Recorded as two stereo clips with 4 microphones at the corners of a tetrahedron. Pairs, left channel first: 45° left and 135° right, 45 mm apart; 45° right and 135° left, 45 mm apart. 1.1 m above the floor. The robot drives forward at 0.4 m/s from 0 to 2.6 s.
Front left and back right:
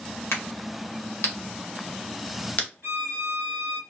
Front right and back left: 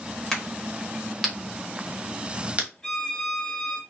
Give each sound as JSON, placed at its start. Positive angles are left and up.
{"t": 0.3, "sound": "a crack", "azimuth_deg": 35, "distance_m": 1.2}
{"t": 2.8, "sound": "a violin", "azimuth_deg": -125, "distance_m": 1.1}